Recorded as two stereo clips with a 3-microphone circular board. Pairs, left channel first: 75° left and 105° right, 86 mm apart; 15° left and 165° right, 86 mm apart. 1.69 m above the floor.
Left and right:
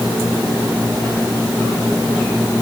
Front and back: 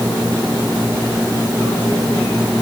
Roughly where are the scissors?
No scissors in this recording.